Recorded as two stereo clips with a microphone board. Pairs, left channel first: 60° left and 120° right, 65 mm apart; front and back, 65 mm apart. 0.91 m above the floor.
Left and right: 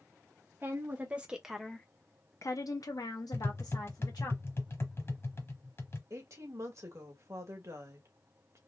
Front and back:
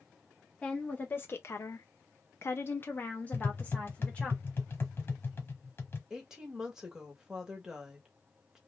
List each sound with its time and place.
0.6 s a woman speaking: 65° right, 1.0 m; by 4.3 s 75° left, 1.7 m
3.3 s tapping: 40° left, 0.9 m
6.1 s a woman speaking: 100° right, 1.3 m